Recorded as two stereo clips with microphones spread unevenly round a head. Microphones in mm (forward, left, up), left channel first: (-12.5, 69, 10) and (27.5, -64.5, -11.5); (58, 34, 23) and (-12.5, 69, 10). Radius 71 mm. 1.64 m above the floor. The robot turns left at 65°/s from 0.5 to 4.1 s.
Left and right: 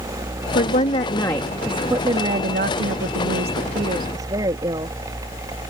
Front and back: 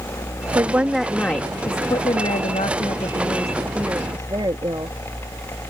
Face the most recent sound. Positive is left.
turn(degrees=-140)